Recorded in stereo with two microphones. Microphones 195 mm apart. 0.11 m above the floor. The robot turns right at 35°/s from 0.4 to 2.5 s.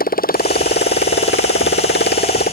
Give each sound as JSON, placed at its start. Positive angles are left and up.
{"t": 0.0, "sound": "a motorcycle", "azimuth_deg": 50}